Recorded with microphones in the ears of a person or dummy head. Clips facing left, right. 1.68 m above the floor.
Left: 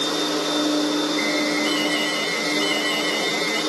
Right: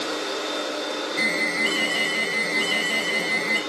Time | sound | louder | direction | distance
0.0 | a machine running | left 5 dB | 70° left (ahead or behind) | 0.7 m
1.2 | an alarm | left 6 dB | 15° right (ahead or behind) | 3 m